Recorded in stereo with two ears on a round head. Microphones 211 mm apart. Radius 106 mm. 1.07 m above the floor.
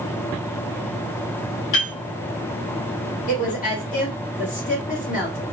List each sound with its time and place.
1.7 s a piano: 55° left (ahead or behind), 1.9 m
3.3 s a woman speaking: 35° left (ahead or behind), 1.7 m